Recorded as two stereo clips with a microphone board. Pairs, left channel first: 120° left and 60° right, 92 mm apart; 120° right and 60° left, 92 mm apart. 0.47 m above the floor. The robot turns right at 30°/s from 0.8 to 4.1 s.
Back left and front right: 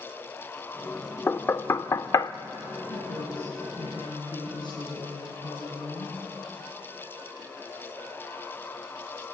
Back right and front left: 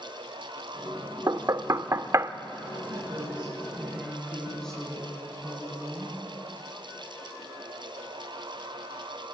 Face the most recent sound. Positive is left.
turn(degrees=155)